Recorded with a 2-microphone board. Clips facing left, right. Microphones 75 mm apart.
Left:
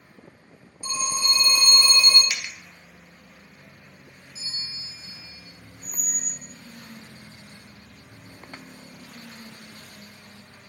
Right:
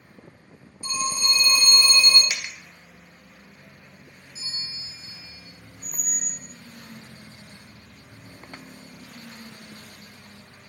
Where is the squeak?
50° right (ahead or behind), 0.7 m.